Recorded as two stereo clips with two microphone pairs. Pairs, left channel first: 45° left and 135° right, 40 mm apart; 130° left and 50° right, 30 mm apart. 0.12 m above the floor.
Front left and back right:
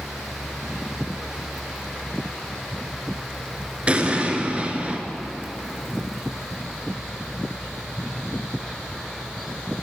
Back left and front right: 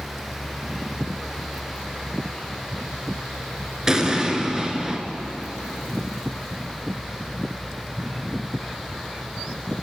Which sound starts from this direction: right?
An explosion, at 3.9 s.